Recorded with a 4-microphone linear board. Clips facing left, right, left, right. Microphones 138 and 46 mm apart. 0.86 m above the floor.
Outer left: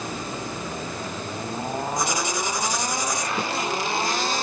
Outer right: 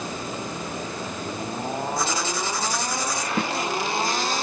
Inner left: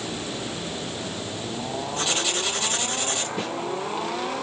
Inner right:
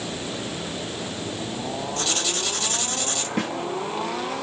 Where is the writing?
15° left (ahead or behind), 2.5 m.